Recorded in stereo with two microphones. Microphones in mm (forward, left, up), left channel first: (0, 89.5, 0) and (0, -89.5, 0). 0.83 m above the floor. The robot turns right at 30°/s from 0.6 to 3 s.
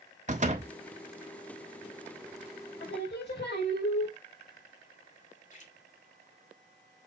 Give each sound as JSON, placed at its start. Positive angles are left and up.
{"t": 0.3, "sound": "a door slam", "side_deg": -40, "distance_m": 1.4}
{"t": 2.8, "sound": "singing", "side_deg": 80, "distance_m": 3.5}
{"t": 5.5, "sound": "a splash", "side_deg": 45, "distance_m": 2.5}